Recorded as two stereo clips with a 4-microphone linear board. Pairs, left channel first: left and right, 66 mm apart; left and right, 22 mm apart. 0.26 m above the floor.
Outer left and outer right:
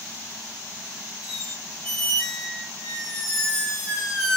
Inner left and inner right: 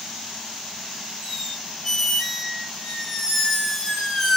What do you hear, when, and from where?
1.2 s a squeak: 5° left (ahead or behind), 1.5 m